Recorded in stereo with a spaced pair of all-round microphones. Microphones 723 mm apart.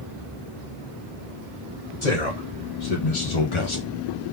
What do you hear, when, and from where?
2.0 s a man speaking: 70° left (ahead or behind), 2 m; by 3.9 s 20° left (ahead or behind), 0.6 m